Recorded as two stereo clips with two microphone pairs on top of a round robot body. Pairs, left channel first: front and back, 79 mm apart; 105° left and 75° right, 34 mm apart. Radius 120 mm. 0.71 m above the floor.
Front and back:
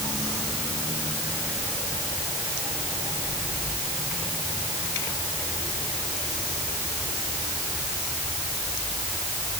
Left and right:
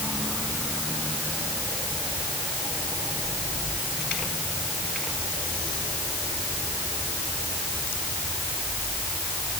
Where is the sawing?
No sawing in this recording.